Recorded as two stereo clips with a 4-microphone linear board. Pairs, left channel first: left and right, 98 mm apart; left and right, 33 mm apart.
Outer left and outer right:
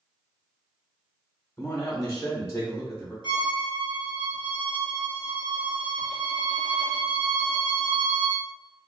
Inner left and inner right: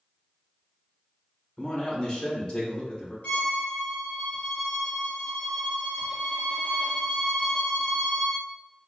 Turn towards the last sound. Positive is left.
turn(degrees=50)  # may be behind; listen again after turning